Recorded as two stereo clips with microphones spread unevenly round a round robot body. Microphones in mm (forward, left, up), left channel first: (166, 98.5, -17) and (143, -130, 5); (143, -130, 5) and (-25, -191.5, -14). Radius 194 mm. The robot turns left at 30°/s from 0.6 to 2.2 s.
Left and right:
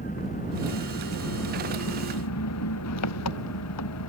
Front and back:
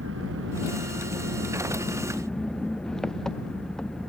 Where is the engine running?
155° left; by 4.1 s 110° left.